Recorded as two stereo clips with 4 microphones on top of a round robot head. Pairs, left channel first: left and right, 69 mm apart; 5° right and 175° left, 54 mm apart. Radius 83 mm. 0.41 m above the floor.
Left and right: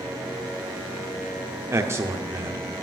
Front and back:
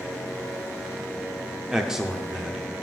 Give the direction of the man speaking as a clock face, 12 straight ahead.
4 o'clock.